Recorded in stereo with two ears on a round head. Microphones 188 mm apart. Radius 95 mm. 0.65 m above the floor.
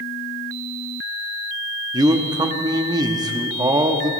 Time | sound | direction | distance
1.9 | a man speaking | 20° right (ahead or behind) | 0.9 m